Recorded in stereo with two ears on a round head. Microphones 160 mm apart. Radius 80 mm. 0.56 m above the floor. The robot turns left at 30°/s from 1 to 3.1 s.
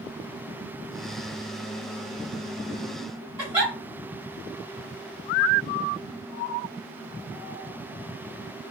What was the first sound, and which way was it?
A giggle, 10° right (ahead or behind).